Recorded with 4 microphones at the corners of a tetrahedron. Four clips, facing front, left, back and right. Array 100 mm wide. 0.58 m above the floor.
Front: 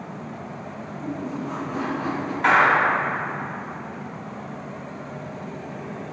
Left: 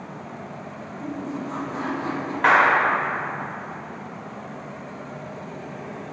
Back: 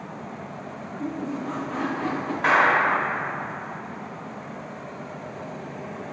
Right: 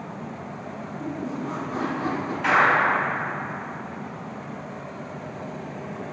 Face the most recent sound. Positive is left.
turn(degrees=95)